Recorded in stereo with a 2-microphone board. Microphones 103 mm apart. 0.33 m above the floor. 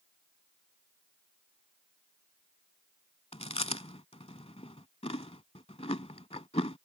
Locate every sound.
3.3 s chewing: 80° left